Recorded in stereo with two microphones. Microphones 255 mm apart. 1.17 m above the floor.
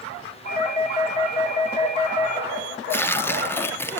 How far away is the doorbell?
About 2 m.